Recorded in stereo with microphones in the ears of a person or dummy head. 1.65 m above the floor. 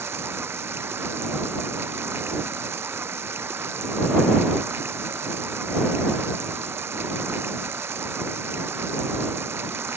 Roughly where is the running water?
Centre.